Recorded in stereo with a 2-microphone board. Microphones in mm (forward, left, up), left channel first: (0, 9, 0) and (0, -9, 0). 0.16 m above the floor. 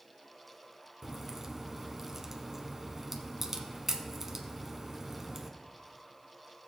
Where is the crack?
20° right (ahead or behind), 1.0 m.